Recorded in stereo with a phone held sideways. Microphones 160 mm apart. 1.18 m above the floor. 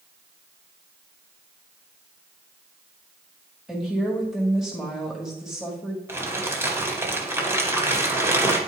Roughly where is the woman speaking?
Centre.